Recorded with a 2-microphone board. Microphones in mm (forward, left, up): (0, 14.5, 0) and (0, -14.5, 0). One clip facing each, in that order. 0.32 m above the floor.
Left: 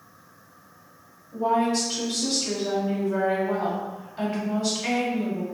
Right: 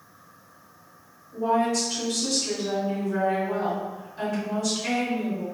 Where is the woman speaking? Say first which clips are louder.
Left 1 dB; 40° left (ahead or behind), 1.9 m.